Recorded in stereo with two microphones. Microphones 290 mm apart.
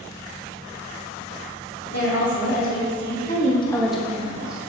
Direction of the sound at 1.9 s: 55° left (ahead or behind).